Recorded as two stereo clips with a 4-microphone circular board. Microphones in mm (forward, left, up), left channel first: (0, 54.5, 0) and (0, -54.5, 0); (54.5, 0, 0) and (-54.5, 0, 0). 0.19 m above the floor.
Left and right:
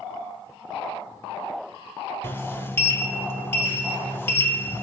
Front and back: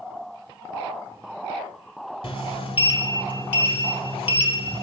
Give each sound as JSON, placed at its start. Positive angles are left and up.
{"t": 2.2, "sound": "a sliding door", "azimuth_deg": 25, "distance_m": 0.7}